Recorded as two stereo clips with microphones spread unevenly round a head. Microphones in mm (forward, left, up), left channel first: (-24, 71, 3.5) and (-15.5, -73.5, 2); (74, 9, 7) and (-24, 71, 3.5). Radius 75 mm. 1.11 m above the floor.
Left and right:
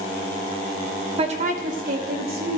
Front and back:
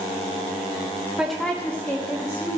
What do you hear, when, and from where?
1.2 s a woman speaking: 130° right, 1.0 m; by 2.6 s 100° right, 3 m